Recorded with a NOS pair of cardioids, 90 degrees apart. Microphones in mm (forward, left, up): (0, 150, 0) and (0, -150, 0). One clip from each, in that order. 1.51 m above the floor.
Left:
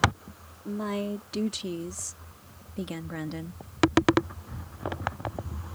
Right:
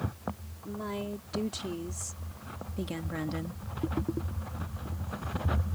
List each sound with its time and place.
0.7 s a woman speaking: 40° left; by 3.6 s straight ahead